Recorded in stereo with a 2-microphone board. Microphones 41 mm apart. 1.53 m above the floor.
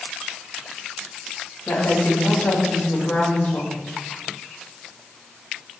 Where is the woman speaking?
45° left (ahead or behind), 2.5 m.